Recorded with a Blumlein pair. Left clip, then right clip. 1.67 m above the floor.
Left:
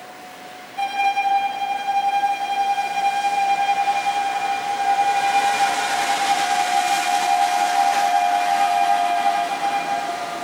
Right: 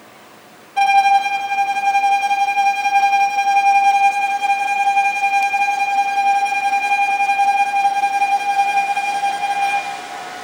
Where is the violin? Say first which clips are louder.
Right 8 dB; 40° right, 2 m.